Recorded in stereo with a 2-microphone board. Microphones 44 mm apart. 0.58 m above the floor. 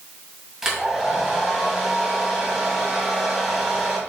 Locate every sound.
0.6 s a hair dryer: 10° right (ahead or behind), 2 m